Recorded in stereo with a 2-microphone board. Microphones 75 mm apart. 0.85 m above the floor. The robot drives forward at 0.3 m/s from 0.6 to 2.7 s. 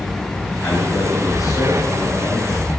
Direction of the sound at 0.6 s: 45° left (ahead or behind).